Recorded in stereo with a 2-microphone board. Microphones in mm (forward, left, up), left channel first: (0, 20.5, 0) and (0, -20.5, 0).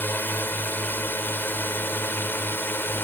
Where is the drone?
55° left (ahead or behind); by 3.1 s 60° left (ahead or behind).